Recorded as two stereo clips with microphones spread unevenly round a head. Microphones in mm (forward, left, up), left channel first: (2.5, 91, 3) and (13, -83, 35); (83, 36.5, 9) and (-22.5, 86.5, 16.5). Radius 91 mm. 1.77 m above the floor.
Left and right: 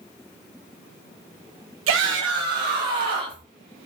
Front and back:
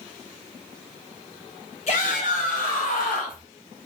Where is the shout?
85° right, 0.6 m; by 3.4 s 35° right, 1.1 m.